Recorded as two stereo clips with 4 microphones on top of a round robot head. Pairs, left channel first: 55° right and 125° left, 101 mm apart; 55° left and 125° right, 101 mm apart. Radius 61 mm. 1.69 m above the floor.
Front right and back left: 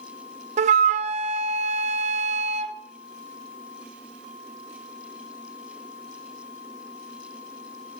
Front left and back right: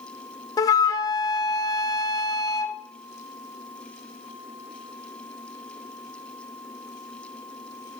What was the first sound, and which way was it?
A flute, 110° left.